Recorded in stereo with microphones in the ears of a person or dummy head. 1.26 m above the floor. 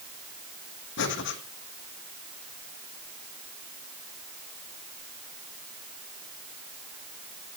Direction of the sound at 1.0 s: 60° left (ahead or behind).